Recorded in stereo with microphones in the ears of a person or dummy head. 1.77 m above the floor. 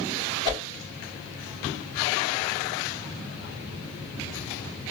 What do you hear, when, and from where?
0.5 s a whoosh: 20° right (ahead or behind), 3 m